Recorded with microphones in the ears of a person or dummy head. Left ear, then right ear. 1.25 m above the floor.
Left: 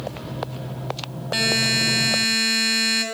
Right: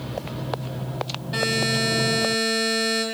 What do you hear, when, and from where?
1.3 s a buzzer: 30° left (ahead or behind), 1.8 m